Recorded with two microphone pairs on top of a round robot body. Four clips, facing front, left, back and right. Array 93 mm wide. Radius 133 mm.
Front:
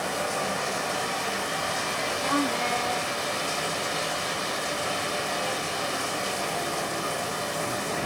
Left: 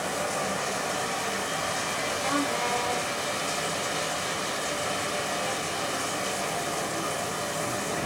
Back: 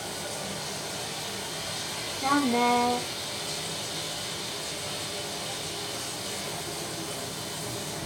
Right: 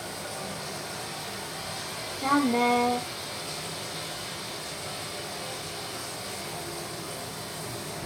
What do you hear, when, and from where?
0.0 s running water: 35° left, 1.8 m
2.2 s a woman speaking: 120° right, 5 m